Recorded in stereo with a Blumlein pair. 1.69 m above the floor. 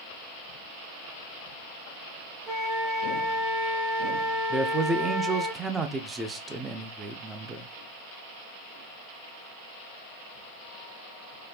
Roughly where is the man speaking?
Ahead.